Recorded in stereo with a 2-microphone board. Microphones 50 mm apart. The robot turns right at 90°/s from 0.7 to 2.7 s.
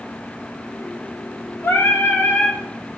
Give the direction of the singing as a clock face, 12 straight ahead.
10 o'clock.